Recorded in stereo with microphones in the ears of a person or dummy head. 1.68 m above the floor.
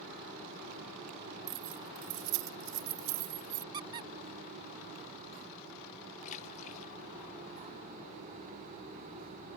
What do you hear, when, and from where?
1.5 s keys jangling: 65° right (ahead or behind)
3.7 s a squeak: 25° right (ahead or behind)
6.2 s a splash: 45° left (ahead or behind)